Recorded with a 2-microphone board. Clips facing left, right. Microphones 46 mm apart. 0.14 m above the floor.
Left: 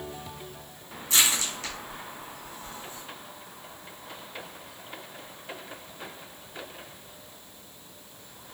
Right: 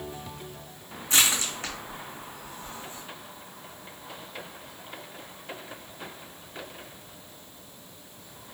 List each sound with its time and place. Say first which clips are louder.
1.1 s crushing: right 1 dB; 35° right (ahead or behind), 1.9 m